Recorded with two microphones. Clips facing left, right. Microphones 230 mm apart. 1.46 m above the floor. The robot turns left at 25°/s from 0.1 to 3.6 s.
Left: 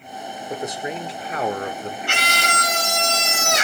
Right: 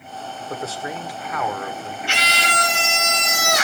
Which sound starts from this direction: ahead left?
A scream, at 2.1 s.